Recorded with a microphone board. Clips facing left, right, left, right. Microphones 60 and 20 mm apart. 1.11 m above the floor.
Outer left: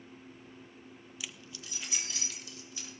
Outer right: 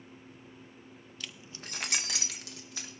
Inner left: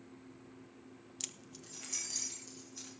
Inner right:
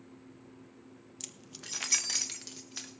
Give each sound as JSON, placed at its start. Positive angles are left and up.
{"t": 1.2, "sound": "keys jangling", "side_deg": 15, "distance_m": 0.5}